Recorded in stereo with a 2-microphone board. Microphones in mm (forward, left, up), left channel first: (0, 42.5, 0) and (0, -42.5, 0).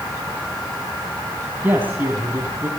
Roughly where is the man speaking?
Right.